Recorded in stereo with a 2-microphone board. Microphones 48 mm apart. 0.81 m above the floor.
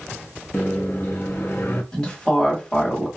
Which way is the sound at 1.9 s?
20° left (ahead or behind).